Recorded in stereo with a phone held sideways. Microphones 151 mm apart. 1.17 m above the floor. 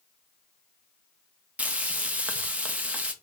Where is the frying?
10° right (ahead or behind), 0.5 m.